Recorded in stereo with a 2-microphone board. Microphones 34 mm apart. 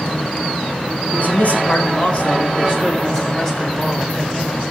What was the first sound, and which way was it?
A man speaking, 55° left (ahead or behind).